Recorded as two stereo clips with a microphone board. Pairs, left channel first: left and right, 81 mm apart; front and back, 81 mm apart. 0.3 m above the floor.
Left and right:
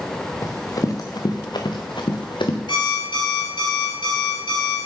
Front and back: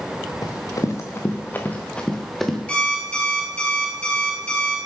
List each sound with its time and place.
0.4 s running footsteps: 40° left, 2.5 m; by 2.6 s 90° left, 2 m
2.7 s an alarm clock: 75° left, 3.5 m